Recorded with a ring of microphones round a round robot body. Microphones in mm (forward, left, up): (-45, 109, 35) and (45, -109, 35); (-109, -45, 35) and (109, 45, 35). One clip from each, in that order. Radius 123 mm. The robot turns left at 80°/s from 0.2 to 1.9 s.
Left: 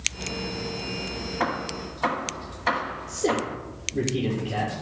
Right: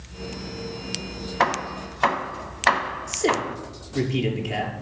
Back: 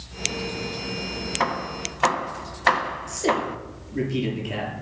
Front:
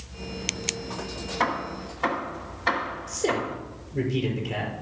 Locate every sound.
1.4 s hammering: 70° right, 1.3 m; by 3.6 s 110° right, 1.3 m
3.1 s a man speaking: 85° right, 6.5 m